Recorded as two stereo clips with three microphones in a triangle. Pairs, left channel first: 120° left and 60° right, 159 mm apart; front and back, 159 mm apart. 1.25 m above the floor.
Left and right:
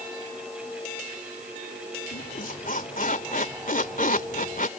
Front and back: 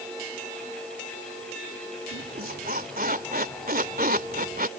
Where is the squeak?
155° left.